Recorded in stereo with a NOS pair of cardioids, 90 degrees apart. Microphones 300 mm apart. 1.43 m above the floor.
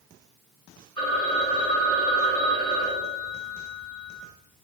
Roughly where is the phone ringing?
Ahead.